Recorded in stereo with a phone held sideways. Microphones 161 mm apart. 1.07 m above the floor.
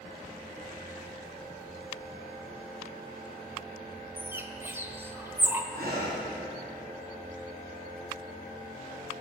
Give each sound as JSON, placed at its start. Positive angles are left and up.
{"t": 4.2, "sound": "a bird", "side_deg": -15, "distance_m": 1.0}
{"t": 5.7, "sound": "breathing", "side_deg": -75, "distance_m": 4.0}